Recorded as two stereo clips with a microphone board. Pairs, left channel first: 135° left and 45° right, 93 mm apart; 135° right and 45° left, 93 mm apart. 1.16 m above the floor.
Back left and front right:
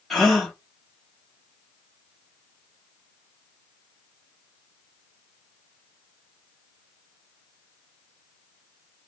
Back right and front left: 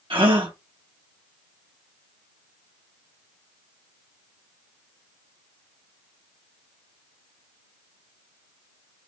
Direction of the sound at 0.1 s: 45° left.